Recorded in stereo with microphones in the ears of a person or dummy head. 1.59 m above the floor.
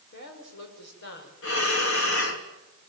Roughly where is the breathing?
Left.